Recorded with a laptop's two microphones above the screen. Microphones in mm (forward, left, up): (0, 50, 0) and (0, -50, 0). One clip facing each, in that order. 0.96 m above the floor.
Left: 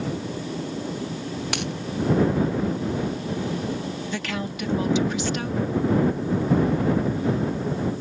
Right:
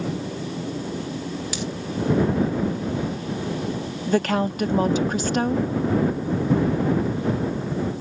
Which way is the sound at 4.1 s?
45° right (ahead or behind).